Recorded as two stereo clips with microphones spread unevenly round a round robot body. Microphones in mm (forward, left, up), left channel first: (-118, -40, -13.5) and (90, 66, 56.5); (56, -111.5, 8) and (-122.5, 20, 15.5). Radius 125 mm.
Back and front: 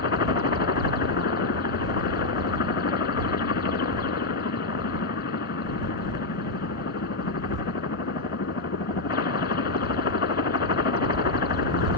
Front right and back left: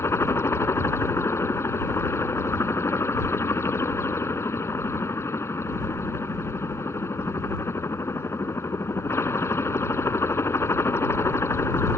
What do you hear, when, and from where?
0.0 s a helicopter: 115° right